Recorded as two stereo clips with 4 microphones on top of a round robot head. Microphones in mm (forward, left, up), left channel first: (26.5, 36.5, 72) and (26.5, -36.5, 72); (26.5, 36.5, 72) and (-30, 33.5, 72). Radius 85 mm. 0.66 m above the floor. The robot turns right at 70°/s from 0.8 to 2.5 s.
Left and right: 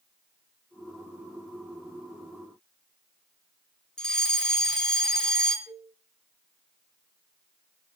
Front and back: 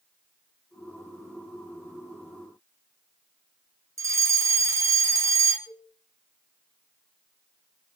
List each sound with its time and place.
4.0 s a fire alarm: 170° left, 3.5 m
5.7 s a cowbell: 65° right, 10 m